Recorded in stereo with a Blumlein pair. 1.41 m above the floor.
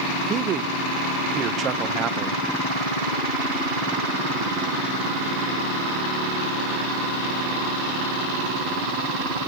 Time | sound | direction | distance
0.3 | a man speaking | 30° right | 1.1 m